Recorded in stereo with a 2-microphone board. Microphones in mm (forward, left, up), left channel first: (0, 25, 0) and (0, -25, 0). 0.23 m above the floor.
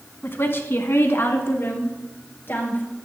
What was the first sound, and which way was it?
A woman speaking, 45° left (ahead or behind).